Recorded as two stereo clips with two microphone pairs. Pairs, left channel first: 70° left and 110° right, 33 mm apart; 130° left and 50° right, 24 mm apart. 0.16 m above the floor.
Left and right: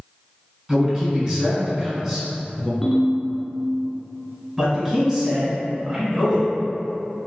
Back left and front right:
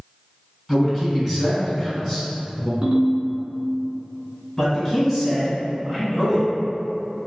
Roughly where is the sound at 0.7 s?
Behind right.